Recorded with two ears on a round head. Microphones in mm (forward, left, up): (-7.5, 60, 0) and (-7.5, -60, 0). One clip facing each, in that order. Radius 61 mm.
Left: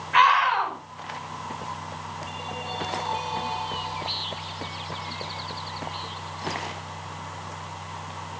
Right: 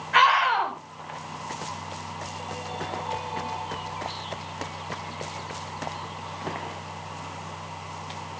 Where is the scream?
45° right (ahead or behind), 6.5 m.